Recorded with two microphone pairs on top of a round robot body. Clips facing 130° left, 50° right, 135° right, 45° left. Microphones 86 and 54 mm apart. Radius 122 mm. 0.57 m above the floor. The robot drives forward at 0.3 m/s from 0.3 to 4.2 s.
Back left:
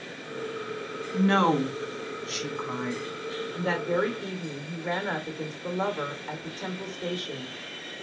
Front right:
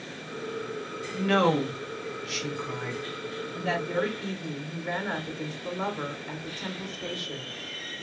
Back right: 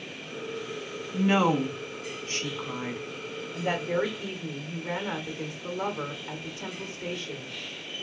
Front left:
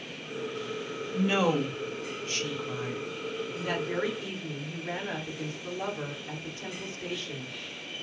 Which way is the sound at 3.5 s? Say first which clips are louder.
Back left 2 dB, back right 5 dB; 165° left.